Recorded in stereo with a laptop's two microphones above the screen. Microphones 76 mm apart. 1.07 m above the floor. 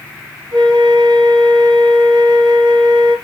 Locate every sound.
0.5 s a flute: 75° right (ahead or behind), 3 m